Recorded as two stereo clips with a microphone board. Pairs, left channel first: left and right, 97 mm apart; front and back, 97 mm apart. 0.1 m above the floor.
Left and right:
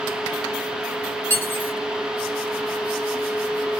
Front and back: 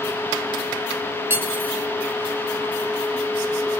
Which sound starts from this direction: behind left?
Cutlery clinking, at 1.3 s.